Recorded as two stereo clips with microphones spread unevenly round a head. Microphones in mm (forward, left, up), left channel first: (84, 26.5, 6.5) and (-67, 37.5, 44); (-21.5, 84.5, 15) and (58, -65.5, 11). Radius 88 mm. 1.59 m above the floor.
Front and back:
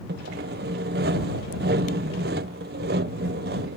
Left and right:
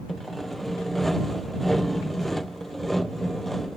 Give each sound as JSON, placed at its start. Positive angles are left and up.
{"t": 0.1, "sound": "sawing", "azimuth_deg": -155}